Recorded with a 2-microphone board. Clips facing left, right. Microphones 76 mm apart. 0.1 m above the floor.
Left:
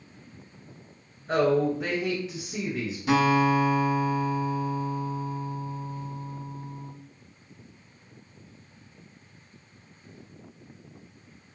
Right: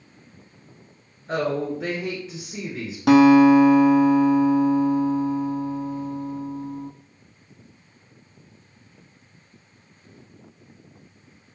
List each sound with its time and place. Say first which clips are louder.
1.3 s a woman speaking: left 2 dB; 5° left (ahead or behind), 1.1 m
3.1 s a guitar: right 10 dB; 75° right (ahead or behind), 0.6 m